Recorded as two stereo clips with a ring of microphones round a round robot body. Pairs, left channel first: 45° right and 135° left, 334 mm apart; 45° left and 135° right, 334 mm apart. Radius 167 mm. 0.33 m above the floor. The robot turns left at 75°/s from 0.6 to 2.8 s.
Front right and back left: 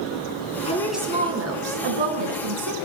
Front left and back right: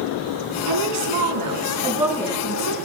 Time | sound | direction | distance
0.7 | a woman speaking | 115° right | 3.5 m